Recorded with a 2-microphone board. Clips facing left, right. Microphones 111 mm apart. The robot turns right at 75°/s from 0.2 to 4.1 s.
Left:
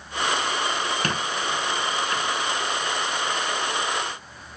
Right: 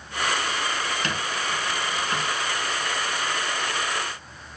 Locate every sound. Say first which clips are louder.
1.0 s a squeak: left 2 dB; 50° left (ahead or behind), 0.9 m; by 2.3 s 40° right (ahead or behind), 0.9 m